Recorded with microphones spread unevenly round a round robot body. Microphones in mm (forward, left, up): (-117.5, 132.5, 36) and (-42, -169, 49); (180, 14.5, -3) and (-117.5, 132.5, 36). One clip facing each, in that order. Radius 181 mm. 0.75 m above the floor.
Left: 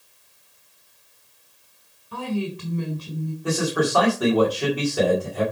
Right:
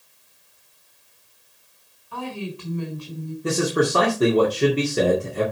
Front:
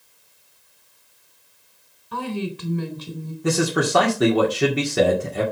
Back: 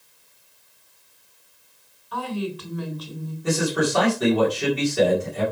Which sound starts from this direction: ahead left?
A woman speaking, at 2.1 s.